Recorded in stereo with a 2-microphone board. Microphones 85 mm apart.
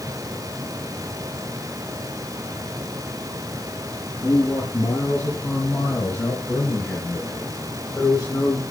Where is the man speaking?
25° left (ahead or behind), 5.5 m.